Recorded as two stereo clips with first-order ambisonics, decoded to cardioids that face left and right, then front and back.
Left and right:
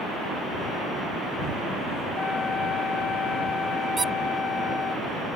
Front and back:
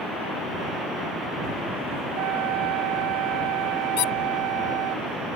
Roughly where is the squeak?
Ahead.